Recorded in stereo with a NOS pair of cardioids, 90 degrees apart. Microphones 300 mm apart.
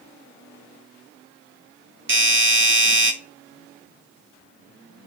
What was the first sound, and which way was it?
A doorbell, 40° right.